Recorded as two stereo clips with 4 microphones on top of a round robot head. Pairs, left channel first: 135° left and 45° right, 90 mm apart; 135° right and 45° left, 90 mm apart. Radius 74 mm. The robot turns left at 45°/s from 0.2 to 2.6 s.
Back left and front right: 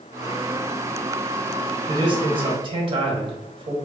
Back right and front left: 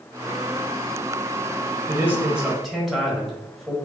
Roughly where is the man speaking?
Ahead.